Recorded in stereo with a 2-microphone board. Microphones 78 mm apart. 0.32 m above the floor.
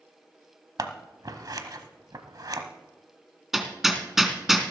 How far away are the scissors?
About 1.0 m.